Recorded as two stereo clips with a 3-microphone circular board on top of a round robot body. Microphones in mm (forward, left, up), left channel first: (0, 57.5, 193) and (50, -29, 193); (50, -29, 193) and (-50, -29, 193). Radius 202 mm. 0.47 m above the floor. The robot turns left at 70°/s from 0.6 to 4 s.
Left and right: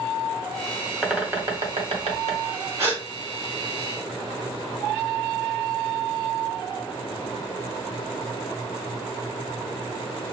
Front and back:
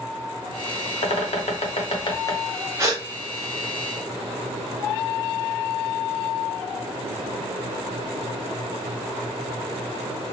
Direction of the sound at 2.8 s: 120° right.